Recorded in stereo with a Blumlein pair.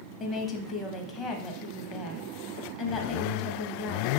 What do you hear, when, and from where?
0.2 s a woman speaking: 25° left, 0.8 m